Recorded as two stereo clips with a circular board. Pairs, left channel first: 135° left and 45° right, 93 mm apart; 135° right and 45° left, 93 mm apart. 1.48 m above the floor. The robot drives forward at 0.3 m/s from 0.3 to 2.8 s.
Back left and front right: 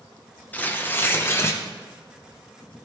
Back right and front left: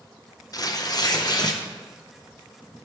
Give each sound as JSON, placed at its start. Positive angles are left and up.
{"t": 0.5, "sound": "tearing paper", "azimuth_deg": -160, "distance_m": 0.6}